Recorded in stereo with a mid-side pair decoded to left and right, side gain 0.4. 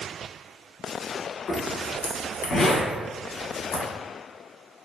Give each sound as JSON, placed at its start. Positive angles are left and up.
{"t": 1.5, "sound": "a zipper", "azimuth_deg": 70, "distance_m": 1.0}